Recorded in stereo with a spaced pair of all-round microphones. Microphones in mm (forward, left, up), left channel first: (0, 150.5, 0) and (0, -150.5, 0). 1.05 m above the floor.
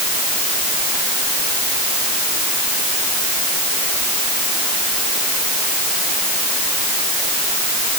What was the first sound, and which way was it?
Only background noise.